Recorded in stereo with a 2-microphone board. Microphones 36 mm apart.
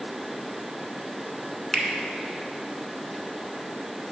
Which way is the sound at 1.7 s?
15° left (ahead or behind).